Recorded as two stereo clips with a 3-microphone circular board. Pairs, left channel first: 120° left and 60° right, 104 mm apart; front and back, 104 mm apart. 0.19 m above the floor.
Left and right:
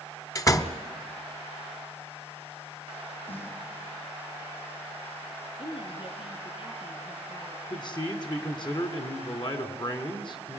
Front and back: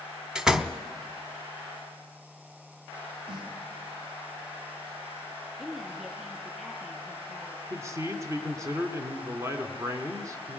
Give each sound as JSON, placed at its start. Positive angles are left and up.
{"t": 0.3, "sound": "a door slam", "azimuth_deg": 100, "distance_m": 0.9}
{"t": 3.3, "sound": "a snare drum", "azimuth_deg": 140, "distance_m": 5.0}
{"t": 5.6, "sound": "a woman speaking", "azimuth_deg": 95, "distance_m": 5.0}
{"t": 7.7, "sound": "a man speaking", "azimuth_deg": 130, "distance_m": 2.5}